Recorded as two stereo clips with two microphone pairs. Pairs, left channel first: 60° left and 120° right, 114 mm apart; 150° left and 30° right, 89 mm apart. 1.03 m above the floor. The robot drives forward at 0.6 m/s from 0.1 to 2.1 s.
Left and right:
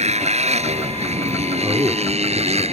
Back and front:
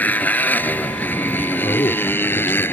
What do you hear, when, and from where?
0.0 s a motorcycle: 140° right; by 2.7 s 145° right
1.6 s a man speaking: 175° left